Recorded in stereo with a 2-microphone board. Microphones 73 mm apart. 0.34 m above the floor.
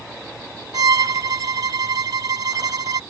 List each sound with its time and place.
0.7 s a violin: 60° right (ahead or behind)